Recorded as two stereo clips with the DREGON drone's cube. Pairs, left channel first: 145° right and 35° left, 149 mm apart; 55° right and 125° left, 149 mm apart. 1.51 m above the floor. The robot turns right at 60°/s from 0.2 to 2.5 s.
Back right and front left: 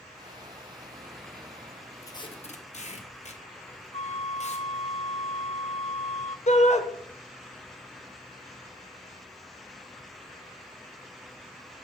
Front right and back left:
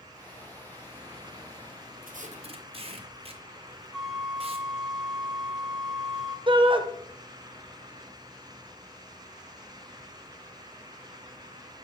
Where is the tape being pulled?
145° left, 0.9 m; by 4.7 s 175° left, 0.9 m.